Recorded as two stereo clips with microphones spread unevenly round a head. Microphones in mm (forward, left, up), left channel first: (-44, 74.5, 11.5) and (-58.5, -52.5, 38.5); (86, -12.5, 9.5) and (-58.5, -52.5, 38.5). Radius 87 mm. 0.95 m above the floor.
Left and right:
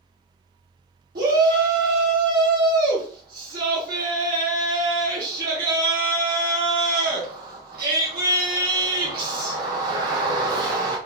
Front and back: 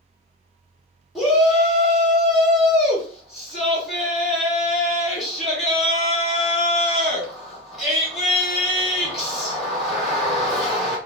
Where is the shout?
75° right, 1.9 m.